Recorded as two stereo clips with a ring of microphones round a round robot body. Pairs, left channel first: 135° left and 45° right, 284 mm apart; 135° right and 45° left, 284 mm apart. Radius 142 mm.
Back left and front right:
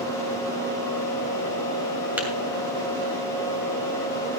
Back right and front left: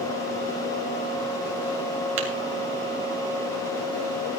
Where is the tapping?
40° left, 2.5 m.